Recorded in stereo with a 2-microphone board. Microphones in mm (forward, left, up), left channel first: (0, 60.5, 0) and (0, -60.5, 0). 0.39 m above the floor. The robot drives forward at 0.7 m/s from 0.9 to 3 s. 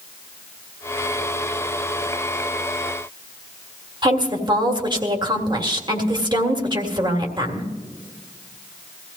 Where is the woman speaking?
35° right (ahead or behind), 1.7 m.